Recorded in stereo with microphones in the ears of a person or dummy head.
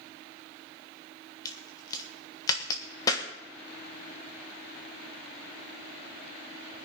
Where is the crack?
20° left (ahead or behind), 1.6 m.